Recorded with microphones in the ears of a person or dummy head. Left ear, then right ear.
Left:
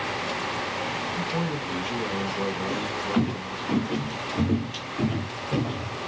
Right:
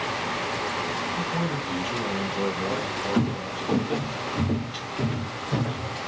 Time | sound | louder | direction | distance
1.1 | a man speaking | right 1 dB | 5° right (ahead or behind) | 2 m
2.7 | footsteps | right 1 dB | 15° left (ahead or behind) | 2.5 m